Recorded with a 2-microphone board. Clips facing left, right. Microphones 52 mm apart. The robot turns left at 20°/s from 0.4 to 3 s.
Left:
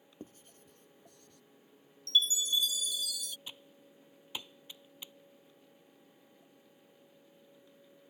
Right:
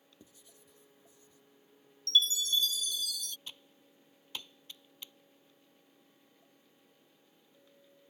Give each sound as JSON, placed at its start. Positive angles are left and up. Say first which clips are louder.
{"t": 0.2, "sound": "writing", "louder": "left 10 dB", "side_deg": 40}
{"t": 2.1, "sound": "a chime", "louder": "right 1 dB", "side_deg": 25}
{"t": 3.5, "sound": "typing on a keyboard", "louder": "left 1 dB", "side_deg": 15}